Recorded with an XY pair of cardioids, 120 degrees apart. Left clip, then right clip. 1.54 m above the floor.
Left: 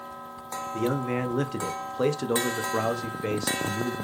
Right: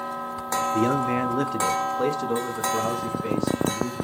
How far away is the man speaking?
About 0.9 m.